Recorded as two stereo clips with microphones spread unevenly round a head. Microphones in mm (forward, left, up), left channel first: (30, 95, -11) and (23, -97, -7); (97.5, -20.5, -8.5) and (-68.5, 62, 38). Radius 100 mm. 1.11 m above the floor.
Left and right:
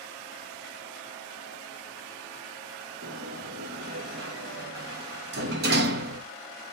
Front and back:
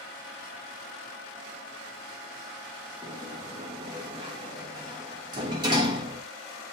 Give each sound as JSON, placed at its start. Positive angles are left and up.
{"t": 3.0, "sound": "a sliding door", "azimuth_deg": -135, "distance_m": 1.2}